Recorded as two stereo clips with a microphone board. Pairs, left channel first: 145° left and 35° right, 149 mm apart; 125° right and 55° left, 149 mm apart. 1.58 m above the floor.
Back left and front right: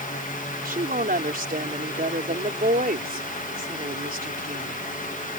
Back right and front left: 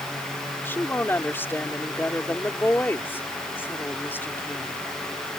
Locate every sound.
0.7 s a woman speaking: 50° right